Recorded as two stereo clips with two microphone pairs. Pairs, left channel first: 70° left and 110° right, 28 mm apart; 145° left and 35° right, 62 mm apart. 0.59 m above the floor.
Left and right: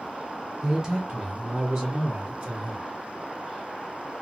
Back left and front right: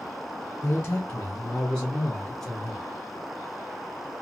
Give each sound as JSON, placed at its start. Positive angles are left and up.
{"t": 0.6, "sound": "a man speaking", "azimuth_deg": 180, "distance_m": 1.5}